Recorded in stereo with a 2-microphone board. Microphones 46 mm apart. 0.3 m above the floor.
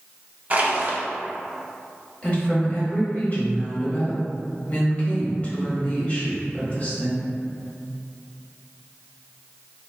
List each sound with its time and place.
0.5 s crushing: 35° right (ahead or behind), 0.6 m
2.2 s a woman speaking: 30° left (ahead or behind), 1.1 m